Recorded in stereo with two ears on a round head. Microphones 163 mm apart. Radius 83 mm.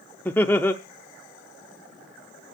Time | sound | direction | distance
0.2 | laughter | 10° left (ahead or behind) | 0.7 m